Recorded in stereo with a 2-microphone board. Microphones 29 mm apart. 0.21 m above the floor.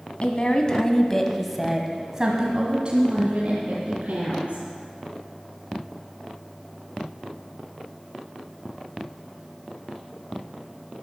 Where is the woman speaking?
40° left (ahead or behind), 1.4 m; by 4.6 s 55° right (ahead or behind), 2.5 m.